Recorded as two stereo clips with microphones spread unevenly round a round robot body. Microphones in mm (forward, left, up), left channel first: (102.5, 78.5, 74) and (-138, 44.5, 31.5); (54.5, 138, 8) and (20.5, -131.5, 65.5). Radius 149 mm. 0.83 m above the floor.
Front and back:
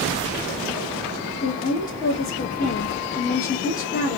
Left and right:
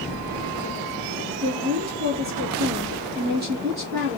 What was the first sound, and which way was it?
A woman speaking, 45° right.